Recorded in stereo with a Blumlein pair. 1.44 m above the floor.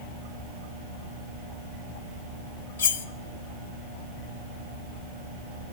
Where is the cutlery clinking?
70° left, 1.7 m.